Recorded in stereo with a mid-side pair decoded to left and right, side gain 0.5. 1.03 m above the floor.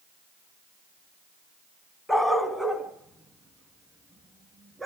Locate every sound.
2.1 s a dog barking: 10° left, 2.5 m; by 4.8 s 10° right, 4.5 m